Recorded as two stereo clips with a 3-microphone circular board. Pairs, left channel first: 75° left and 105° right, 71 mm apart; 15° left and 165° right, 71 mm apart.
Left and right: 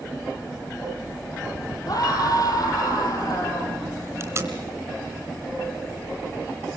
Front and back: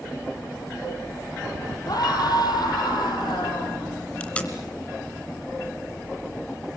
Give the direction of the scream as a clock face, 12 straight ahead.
11 o'clock.